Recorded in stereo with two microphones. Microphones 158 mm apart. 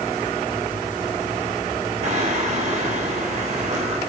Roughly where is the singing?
Right.